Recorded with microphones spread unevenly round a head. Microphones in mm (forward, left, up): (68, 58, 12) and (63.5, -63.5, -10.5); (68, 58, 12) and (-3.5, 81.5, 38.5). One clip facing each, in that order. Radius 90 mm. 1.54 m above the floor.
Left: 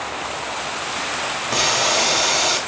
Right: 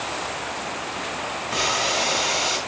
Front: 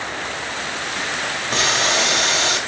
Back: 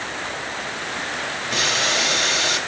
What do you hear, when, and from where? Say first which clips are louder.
1.5 s boiling: left 4 dB, front 3 dB; 45° left, 5 m